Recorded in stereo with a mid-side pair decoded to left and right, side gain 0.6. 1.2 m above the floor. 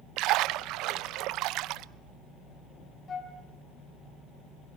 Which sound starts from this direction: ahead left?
A flute, at 3.1 s.